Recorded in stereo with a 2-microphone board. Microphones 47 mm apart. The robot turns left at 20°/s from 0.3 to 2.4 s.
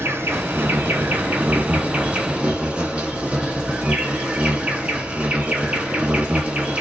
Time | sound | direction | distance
0.0 | an insect | 115° right | 1.8 m